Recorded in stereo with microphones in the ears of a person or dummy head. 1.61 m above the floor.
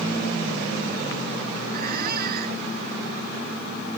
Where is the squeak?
55° right (ahead or behind).